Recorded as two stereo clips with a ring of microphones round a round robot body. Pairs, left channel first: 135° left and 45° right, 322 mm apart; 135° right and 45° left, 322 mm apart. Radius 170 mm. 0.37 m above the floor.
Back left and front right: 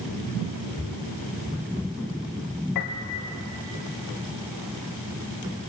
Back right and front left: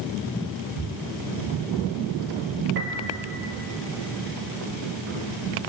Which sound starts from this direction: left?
A piano, at 2.8 s.